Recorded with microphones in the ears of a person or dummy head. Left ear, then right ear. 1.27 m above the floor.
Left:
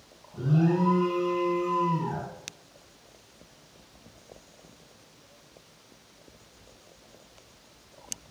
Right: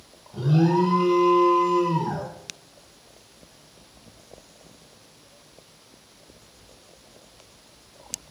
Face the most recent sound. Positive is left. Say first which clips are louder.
# right 5 dB
turn(degrees=-50)  # may be behind; listen again after turning